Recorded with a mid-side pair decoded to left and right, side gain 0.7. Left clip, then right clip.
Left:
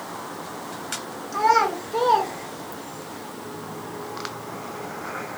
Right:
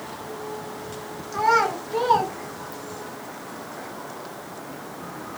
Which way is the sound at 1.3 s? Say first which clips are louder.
Left 1 dB; straight ahead.